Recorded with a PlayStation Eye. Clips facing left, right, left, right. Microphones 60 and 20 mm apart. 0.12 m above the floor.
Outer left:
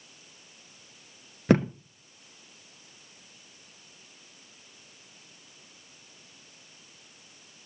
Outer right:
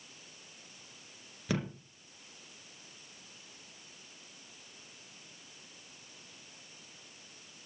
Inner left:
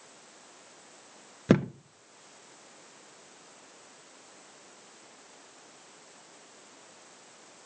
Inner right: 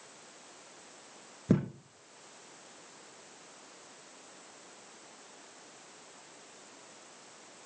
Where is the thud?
50° left (ahead or behind), 0.6 m.